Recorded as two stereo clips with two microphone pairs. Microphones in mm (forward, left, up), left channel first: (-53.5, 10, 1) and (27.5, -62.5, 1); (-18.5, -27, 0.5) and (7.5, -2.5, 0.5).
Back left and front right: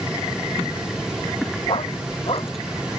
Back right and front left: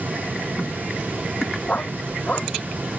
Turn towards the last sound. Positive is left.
turn(degrees=175)